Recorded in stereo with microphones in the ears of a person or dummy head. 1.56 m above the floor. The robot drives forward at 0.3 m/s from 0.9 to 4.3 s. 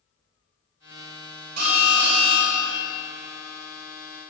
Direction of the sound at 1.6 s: 80° right.